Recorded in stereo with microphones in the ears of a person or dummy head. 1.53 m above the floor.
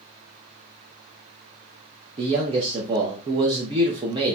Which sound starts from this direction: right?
A man speaking, at 2.2 s.